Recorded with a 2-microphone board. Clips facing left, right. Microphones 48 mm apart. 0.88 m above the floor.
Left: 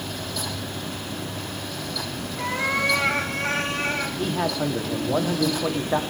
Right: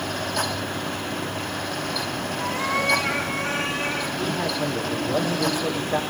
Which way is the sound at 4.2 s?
45° left (ahead or behind).